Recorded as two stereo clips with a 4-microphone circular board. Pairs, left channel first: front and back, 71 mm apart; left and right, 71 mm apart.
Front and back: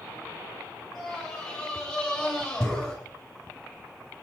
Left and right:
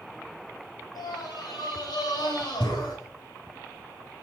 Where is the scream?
90° left, 7 m; by 3.0 s 85° left, 8.5 m.